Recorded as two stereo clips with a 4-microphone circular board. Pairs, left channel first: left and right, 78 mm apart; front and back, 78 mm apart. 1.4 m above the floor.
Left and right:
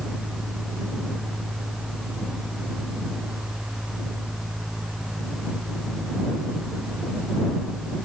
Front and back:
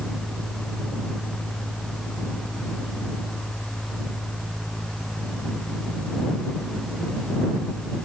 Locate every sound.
Only background noise.